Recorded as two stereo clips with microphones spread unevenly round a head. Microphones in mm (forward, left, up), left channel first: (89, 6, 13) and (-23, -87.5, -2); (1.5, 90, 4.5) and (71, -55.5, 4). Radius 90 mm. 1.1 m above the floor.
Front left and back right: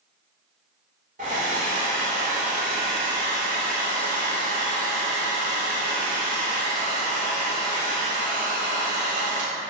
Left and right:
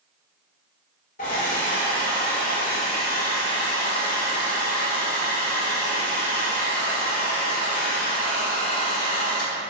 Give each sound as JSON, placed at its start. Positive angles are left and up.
{"t": 1.2, "sound": "a hair dryer", "azimuth_deg": 165, "distance_m": 2.0}